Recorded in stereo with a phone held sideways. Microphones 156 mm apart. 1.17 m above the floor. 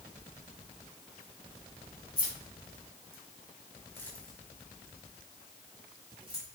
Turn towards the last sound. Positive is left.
turn(degrees=-35)  # may be behind; listen again after turning